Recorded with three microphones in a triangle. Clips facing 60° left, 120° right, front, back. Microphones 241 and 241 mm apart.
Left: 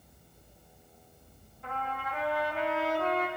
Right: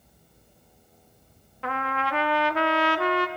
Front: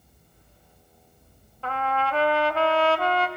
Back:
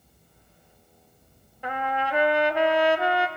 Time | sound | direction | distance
1.6 | a trumpet | 105° right | 0.5 m